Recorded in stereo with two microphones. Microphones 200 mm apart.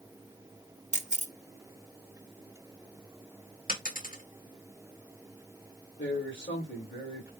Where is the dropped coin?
40° left (ahead or behind), 1.4 m.